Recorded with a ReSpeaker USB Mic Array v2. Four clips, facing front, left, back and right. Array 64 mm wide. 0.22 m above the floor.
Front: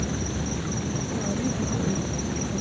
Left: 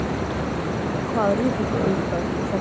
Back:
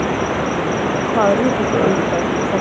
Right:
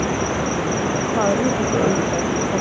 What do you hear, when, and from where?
0.0 s an insect: 160° right
1.0 s a woman speaking: 175° right